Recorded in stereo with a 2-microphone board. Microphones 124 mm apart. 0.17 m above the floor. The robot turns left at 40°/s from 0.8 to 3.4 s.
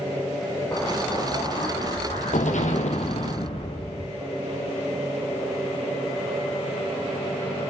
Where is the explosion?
155° left, 1.8 m; by 4.2 s 50° left, 1.8 m.